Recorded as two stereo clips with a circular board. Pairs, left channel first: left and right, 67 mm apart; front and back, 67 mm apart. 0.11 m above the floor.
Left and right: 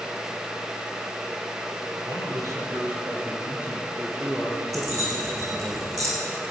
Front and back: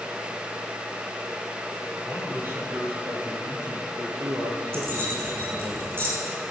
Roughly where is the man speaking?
Behind right.